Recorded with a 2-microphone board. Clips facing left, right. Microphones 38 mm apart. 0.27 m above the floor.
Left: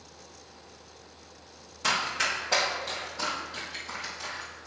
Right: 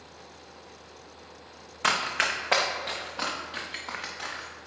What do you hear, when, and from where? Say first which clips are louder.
1.8 s running footsteps: right 2 dB; 45° right (ahead or behind), 1.4 m; by 4.5 s 60° right (ahead or behind), 3 m